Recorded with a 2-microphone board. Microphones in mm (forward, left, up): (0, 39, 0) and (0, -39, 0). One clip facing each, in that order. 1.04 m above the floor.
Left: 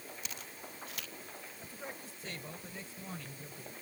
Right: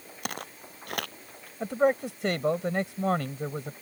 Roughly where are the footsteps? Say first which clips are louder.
Right 10 dB; right.